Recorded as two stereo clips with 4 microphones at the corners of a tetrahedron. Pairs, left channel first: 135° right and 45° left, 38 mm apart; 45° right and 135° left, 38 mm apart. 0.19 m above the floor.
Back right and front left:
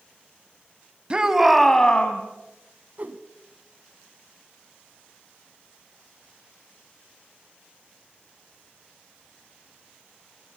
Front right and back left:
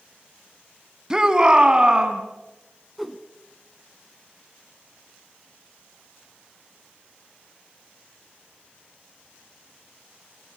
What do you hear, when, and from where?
1.1 s a shout: 80° left, 1.5 m; by 2.2 s 165° right, 1.8 m
3.0 s a whoosh: 45° left, 1.0 m